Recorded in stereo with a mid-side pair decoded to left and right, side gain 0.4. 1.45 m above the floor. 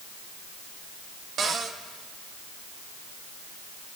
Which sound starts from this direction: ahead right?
A cupboard door, at 1.4 s.